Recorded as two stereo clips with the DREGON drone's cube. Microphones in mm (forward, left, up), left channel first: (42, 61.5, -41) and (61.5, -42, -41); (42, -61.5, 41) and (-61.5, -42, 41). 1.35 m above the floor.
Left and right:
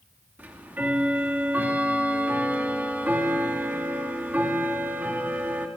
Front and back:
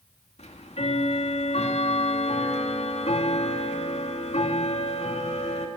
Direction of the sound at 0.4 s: 5° right.